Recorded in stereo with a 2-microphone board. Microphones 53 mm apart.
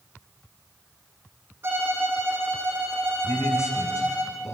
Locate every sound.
1.6 s a violin: 50° right (ahead or behind), 5.5 m
3.2 s a man speaking: 65° left (ahead or behind), 6.5 m